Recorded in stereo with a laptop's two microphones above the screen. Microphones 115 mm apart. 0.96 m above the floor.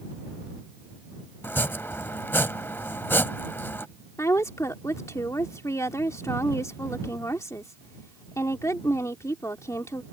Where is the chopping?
20° left (ahead or behind).